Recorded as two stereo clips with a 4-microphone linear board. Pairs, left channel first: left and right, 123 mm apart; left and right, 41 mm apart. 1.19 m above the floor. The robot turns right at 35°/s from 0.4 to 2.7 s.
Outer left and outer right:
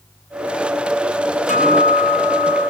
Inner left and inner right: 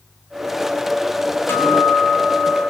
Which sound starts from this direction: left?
A guitar, at 1.5 s.